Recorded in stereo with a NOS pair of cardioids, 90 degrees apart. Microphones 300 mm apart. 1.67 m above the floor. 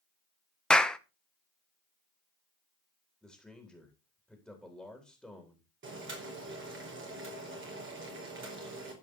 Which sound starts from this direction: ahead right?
Boiling, at 5.8 s.